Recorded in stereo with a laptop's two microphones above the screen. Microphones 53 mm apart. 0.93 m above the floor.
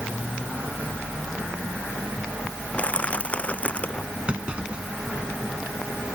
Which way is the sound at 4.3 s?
20° right (ahead or behind).